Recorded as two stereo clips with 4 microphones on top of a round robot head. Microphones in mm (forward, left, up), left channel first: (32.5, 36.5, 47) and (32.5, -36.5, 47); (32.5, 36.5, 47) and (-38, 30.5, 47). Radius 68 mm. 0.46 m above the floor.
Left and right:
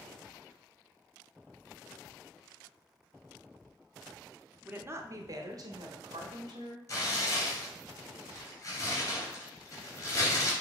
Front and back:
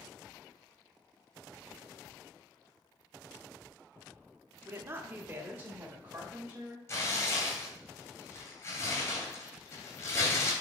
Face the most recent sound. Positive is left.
turn(degrees=45)